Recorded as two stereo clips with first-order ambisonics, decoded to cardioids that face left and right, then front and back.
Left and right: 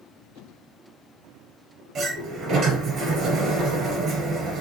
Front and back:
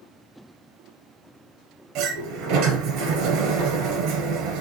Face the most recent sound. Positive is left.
turn(degrees=-145)